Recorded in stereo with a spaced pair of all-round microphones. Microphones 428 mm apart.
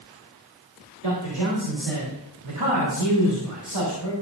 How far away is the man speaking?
About 2.5 m.